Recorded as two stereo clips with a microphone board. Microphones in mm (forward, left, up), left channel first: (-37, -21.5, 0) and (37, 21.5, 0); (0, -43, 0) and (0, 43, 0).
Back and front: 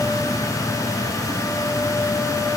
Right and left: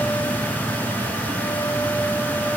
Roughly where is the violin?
I don't hear a violin.